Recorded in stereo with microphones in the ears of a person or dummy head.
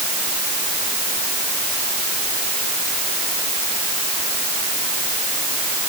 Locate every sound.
Only background noise.